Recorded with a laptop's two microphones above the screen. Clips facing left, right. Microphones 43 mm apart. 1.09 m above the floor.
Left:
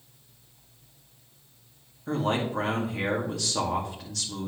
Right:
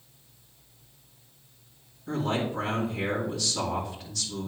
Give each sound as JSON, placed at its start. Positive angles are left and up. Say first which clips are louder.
{"t": 2.1, "sound": "a man speaking", "louder": "left 1 dB", "side_deg": 80, "distance_m": 2.0}